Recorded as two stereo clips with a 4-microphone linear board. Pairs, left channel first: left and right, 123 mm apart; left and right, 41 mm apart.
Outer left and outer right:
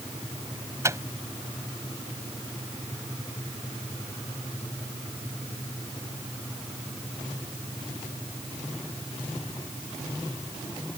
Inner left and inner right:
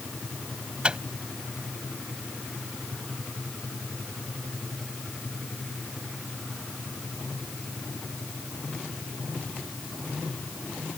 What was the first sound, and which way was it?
A microwave, 25° right (ahead or behind).